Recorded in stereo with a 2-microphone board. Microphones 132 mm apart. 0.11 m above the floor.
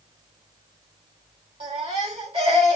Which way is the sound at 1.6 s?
45° right (ahead or behind).